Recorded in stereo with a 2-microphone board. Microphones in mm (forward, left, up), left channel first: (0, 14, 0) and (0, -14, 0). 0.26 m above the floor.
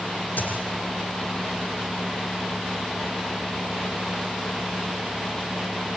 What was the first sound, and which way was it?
A dropped coin, 75° left (ahead or behind).